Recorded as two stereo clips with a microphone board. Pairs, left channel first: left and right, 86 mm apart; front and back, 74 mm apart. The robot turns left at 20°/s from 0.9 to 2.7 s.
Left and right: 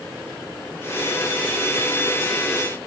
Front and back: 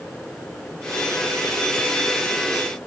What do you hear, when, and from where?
Only background noise.